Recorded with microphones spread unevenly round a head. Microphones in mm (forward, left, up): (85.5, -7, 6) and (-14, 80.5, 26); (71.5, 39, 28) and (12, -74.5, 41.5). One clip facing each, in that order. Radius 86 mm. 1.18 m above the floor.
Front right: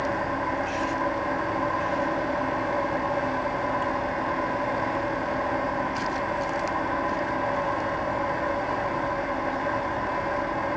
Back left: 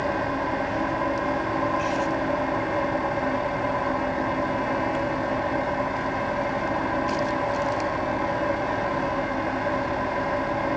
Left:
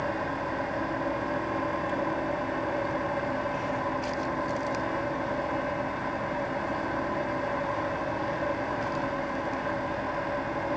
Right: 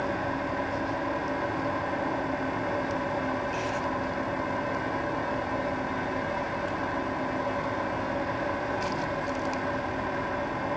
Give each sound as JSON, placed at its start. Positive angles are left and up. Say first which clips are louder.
{"t": 0.0, "sound": "an engine running", "louder": "back left 2 dB, right 1 dB", "azimuth_deg": 70, "distance_m": 7.5}